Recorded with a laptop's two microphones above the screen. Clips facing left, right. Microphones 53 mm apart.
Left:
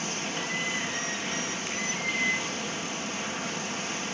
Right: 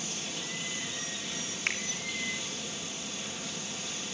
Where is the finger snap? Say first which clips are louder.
Right 1 dB; 75° right (ahead or behind), 2.5 m.